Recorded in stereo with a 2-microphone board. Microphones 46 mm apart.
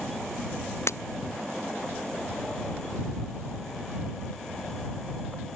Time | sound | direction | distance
0.9 | breaking glass | 70° left (ahead or behind) | ?